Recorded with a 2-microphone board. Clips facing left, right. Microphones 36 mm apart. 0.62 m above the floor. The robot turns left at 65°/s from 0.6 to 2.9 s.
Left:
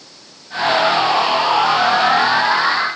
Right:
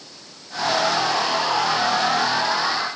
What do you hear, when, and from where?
Only background noise.